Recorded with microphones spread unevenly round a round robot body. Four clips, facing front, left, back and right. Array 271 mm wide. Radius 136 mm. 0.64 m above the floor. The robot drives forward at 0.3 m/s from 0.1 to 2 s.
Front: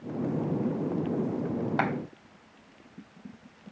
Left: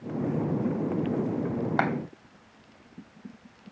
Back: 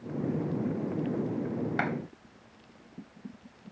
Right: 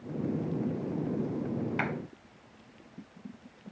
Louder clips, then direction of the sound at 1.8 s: Left 10 dB, front 4 dB; 75° left.